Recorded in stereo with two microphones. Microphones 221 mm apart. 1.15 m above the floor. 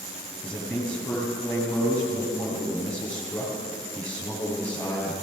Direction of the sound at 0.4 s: 5° left (ahead or behind).